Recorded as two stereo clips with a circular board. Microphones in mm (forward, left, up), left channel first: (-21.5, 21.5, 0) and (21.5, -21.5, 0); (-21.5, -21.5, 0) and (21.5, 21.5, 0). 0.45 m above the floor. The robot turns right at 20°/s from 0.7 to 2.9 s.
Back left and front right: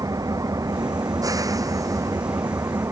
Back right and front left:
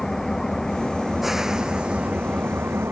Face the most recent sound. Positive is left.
turn(degrees=-10)